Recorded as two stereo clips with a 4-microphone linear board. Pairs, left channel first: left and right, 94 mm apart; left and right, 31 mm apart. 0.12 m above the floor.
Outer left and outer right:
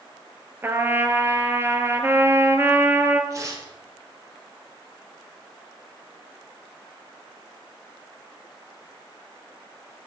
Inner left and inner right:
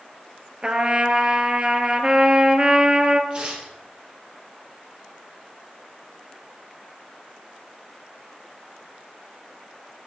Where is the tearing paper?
35° right (ahead or behind), 3 m.